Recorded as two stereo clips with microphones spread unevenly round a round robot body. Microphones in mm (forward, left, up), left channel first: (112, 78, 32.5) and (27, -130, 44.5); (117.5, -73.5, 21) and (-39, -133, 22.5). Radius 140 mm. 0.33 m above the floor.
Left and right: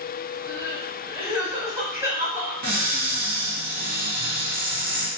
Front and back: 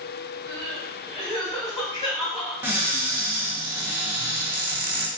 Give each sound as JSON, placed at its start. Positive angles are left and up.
{"t": 0.5, "sound": "crying", "azimuth_deg": -35, "distance_m": 1.9}
{"t": 2.6, "sound": "a cupboard door", "azimuth_deg": -85, "distance_m": 1.4}